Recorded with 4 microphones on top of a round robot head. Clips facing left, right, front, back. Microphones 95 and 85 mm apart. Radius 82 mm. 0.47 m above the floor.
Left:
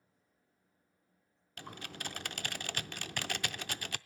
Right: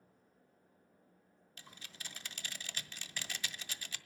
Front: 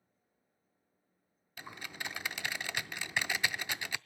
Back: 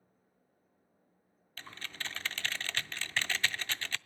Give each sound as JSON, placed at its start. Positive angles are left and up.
{"t": 1.6, "sound": "typing on a keyboard", "azimuth_deg": 75, "distance_m": 0.5}